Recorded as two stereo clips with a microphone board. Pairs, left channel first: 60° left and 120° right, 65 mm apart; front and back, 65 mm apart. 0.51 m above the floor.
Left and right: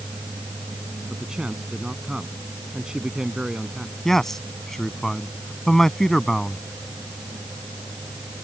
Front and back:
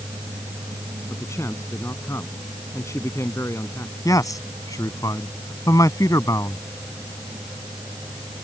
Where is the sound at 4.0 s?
25° right.